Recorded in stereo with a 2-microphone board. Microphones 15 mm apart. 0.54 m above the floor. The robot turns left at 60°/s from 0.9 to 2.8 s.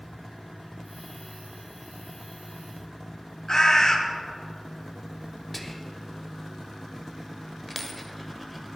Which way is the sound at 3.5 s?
45° left (ahead or behind).